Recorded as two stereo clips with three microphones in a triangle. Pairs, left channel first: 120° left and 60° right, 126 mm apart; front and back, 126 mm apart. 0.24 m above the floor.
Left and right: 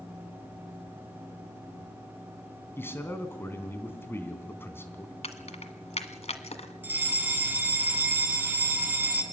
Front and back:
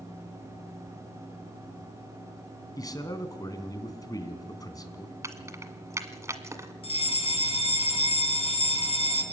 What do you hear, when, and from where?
2.8 s a man speaking: 55° left, 2.5 m
5.2 s keys jangling: 120° left, 1.5 m
6.8 s a fire alarm: 15° left, 3 m